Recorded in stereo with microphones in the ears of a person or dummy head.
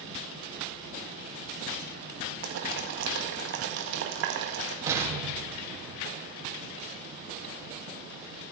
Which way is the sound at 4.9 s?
15° right (ahead or behind).